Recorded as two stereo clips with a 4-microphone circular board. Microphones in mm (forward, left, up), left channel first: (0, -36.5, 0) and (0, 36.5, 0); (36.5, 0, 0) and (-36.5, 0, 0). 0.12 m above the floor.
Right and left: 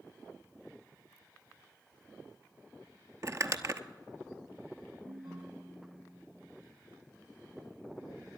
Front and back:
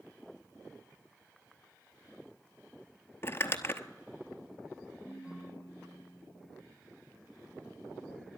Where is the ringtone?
105° left, 4 m.